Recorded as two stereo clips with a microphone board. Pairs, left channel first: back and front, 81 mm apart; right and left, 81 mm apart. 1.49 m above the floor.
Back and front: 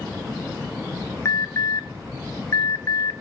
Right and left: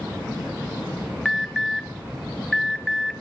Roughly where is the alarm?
Behind.